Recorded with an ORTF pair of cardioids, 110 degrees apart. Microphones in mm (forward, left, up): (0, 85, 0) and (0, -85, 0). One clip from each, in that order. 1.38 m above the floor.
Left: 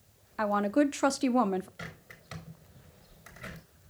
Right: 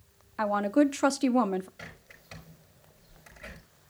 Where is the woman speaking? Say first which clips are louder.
Right 2 dB; straight ahead, 0.6 m.